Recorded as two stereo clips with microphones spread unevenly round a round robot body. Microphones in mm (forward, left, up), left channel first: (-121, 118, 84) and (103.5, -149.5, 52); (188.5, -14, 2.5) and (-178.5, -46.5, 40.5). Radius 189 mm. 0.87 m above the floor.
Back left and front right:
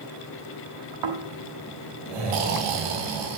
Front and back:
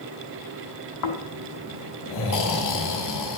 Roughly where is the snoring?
Ahead right.